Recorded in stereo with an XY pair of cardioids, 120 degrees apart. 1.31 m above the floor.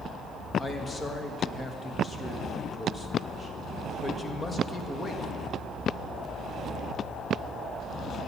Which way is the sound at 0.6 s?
25° left.